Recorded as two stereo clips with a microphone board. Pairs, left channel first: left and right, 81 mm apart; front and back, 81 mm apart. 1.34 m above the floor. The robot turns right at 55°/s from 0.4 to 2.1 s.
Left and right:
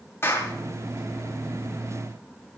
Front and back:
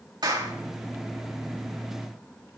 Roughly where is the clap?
Behind left.